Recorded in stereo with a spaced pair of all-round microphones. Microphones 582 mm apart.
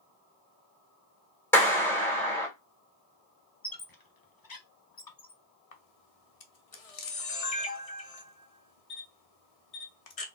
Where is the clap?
5° left (ahead or behind), 2.5 m.